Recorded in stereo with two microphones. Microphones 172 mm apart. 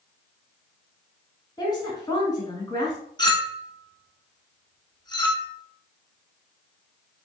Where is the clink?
25° left (ahead or behind), 0.7 m.